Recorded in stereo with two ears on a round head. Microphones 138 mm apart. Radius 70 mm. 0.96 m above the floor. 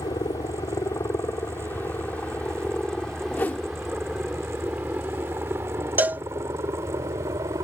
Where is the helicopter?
20° left (ahead or behind); by 7.6 s 20° right (ahead or behind).